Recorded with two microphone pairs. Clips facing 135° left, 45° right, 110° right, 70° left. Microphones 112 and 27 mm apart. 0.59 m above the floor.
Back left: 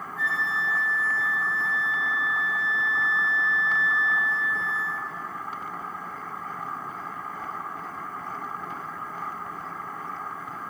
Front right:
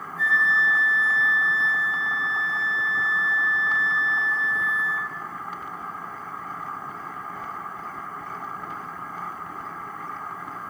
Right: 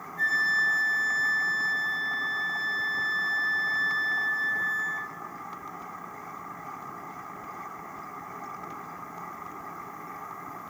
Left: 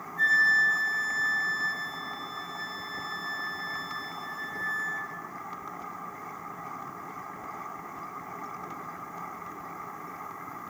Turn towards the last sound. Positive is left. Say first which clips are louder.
# front right 6 dB, left 3 dB
turn(degrees=160)